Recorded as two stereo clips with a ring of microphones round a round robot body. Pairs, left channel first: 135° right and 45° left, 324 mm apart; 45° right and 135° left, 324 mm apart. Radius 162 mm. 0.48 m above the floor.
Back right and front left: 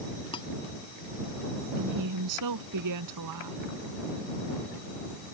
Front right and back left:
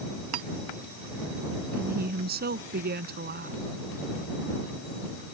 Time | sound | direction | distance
0.3 | cutlery clinking | 150° left | ?
1.8 | a woman speaking | 75° left | ?